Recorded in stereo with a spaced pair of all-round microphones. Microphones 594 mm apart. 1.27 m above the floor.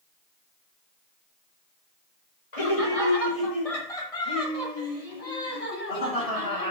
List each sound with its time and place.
2.5 s laughter: 65° left (ahead or behind), 5 m; by 6.7 s 75° left (ahead or behind), 9.5 m